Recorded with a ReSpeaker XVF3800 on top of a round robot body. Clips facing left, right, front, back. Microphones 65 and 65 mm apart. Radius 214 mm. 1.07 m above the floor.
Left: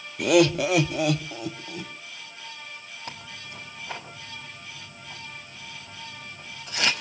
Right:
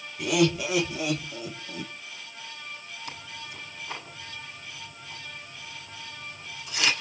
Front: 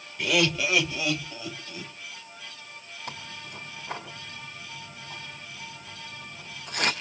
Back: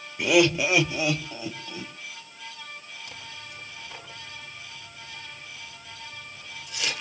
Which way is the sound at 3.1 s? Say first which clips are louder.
Left 1 dB, front 3 dB; 45° left.